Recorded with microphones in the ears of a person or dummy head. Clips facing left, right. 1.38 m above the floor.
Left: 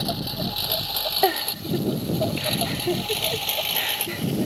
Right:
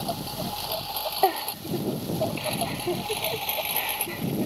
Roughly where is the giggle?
Centre.